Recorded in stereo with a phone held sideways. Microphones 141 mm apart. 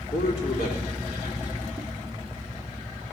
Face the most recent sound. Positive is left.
turn(degrees=75)  # may be behind; listen again after turning